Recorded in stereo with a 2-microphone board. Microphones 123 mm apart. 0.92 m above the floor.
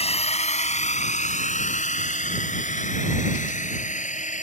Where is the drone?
55° left (ahead or behind); by 4.4 s 85° left.